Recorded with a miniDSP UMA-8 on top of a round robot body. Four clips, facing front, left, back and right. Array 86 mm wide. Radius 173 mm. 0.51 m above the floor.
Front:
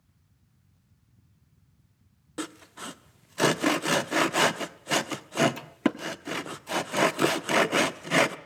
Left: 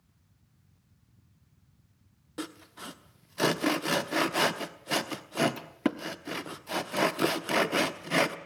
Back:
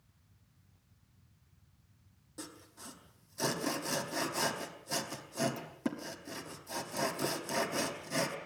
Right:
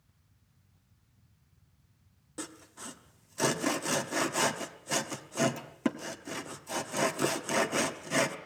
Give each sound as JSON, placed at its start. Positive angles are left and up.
{"t": 2.4, "sound": "sawing", "azimuth_deg": 15, "distance_m": 1.2}